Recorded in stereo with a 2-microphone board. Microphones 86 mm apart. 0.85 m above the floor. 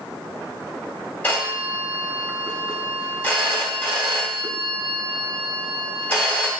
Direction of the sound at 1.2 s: 25° left (ahead or behind).